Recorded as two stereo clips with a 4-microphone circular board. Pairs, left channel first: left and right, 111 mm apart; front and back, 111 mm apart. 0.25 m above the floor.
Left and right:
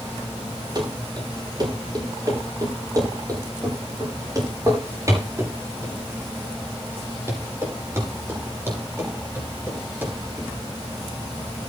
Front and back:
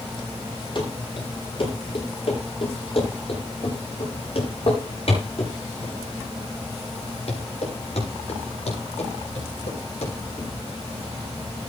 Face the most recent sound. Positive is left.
turn(degrees=-15)